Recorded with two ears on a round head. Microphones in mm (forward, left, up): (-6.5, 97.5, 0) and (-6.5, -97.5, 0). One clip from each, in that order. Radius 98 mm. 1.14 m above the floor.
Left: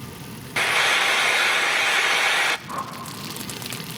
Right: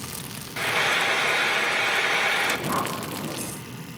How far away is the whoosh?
About 2.5 m.